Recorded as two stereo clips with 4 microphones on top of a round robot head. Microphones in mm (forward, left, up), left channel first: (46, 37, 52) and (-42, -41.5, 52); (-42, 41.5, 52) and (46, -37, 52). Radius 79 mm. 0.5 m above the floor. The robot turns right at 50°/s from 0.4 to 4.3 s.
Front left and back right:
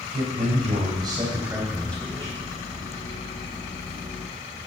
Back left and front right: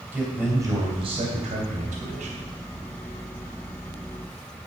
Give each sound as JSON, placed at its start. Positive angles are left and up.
{"t": 0.1, "sound": "a man speaking", "azimuth_deg": -115, "distance_m": 3.0}